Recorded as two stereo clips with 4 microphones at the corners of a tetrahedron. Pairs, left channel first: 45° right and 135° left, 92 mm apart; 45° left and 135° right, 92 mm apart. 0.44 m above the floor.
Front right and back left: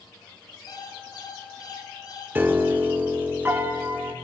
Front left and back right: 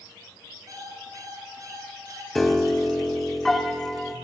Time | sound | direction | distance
0.7 | an alarm clock | 85° right | 2.5 m
2.4 | a piano | 130° left | 0.6 m